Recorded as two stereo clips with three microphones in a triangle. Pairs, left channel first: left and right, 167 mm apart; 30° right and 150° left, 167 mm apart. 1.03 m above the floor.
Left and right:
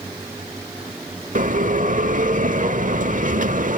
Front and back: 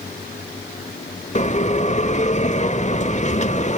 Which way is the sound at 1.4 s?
65° right.